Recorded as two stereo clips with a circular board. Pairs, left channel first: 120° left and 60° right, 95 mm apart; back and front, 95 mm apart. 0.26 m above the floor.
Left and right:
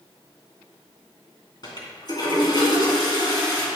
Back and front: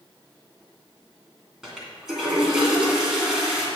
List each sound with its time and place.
1.6 s a toilet flushing: 85° left, 2.5 m